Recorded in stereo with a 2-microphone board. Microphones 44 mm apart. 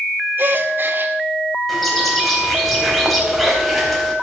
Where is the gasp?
50° right (ahead or behind), 1.6 m.